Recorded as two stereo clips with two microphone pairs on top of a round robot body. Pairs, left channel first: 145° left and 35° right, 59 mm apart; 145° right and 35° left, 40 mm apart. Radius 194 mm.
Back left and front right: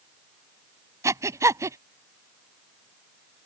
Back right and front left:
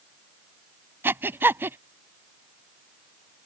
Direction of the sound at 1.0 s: 5° left.